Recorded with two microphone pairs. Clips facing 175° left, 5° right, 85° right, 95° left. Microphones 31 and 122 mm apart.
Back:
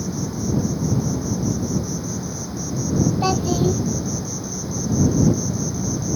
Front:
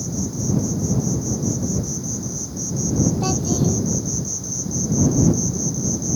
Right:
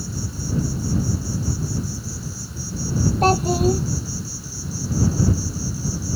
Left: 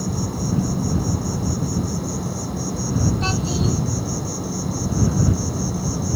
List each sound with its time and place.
0.0 s an insect: 120° left
3.2 s a child speaking: 125° right